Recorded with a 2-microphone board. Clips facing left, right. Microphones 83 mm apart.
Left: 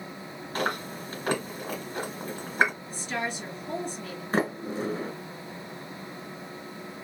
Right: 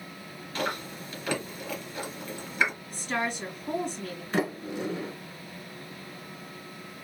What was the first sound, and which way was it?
Chewing, 45° left (ahead or behind).